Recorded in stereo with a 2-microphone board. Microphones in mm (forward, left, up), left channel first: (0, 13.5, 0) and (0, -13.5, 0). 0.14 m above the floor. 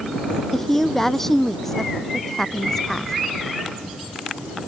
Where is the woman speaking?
15° left (ahead or behind); by 3.1 s 20° left (ahead or behind).